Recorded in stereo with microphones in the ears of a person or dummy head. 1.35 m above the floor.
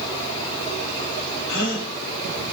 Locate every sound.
1.5 s a gasp: 70° left (ahead or behind), 8.5 m